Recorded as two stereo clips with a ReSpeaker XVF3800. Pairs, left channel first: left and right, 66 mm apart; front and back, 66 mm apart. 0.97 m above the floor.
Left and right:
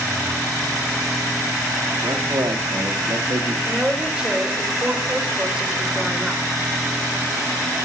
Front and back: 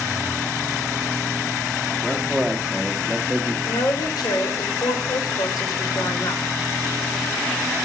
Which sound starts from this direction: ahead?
A woman speaking, at 3.6 s.